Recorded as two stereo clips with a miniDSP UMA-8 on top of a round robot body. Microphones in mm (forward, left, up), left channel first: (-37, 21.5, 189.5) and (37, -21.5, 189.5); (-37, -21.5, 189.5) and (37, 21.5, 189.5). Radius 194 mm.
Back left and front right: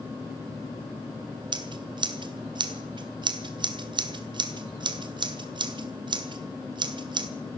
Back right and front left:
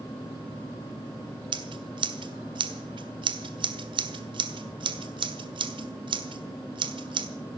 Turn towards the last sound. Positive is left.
turn(degrees=0)